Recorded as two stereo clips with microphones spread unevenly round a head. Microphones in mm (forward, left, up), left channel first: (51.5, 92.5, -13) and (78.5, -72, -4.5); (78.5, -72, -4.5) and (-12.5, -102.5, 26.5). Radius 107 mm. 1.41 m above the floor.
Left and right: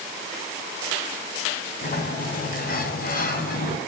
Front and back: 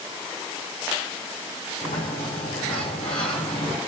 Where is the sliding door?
65° left, 5 m.